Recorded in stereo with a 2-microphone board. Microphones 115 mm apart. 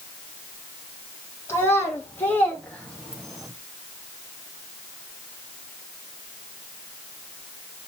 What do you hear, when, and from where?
1.5 s a child speaking: 20° left (ahead or behind), 3 m; by 3.5 s centre (ahead or behind), 1.6 m